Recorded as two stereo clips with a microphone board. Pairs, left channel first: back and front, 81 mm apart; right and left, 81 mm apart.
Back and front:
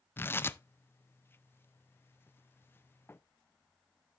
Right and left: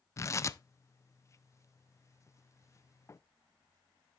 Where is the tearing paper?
130° right, 0.5 m.